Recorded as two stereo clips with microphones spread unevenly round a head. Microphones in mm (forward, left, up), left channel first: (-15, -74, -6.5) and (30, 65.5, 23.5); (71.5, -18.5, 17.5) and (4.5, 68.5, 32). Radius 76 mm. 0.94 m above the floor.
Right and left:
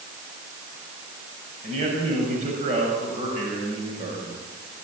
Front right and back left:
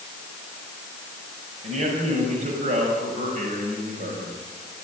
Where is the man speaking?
115° left, 7 m; by 4.4 s 130° left, 6.5 m.